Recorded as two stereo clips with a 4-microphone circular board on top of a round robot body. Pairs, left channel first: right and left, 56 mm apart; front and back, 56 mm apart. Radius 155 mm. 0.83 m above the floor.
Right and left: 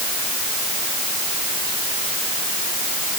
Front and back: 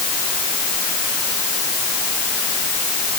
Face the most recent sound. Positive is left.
No sound to turn to.